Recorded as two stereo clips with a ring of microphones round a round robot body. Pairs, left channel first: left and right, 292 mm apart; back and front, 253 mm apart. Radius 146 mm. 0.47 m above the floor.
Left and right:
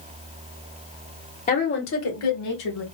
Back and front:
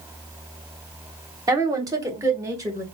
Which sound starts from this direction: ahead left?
A woman speaking, at 1.5 s.